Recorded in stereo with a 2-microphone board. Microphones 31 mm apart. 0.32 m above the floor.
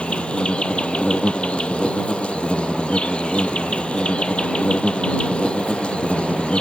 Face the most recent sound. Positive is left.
turn(degrees=40)  # may be behind; listen again after turning